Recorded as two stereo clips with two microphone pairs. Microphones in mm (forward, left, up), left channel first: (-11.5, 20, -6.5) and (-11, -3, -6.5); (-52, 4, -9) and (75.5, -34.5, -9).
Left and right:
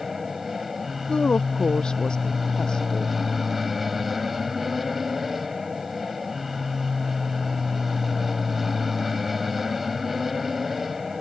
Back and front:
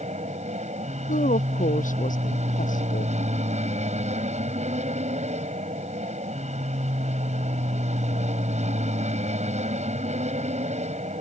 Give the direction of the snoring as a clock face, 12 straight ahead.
No snoring in this recording.